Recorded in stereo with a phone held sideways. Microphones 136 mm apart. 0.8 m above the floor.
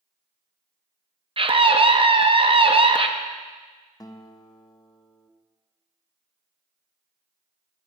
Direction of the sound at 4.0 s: 30° left (ahead or behind).